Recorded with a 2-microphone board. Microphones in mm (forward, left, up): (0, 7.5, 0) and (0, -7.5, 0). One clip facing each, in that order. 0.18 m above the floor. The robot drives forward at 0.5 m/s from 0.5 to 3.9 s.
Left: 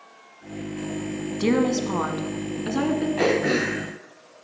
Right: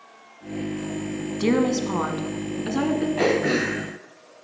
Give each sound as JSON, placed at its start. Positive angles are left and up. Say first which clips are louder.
{"t": 1.4, "sound": "a woman speaking", "louder": "even", "side_deg": 10, "distance_m": 1.2}
{"t": 3.2, "sound": "throat clearing", "louder": "even", "side_deg": 10, "distance_m": 3.5}